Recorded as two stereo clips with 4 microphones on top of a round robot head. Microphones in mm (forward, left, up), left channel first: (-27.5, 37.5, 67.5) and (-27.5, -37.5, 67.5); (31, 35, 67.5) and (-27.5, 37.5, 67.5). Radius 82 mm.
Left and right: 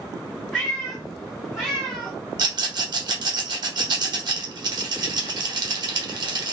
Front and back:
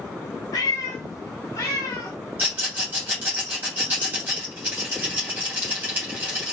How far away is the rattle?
About 1.4 m.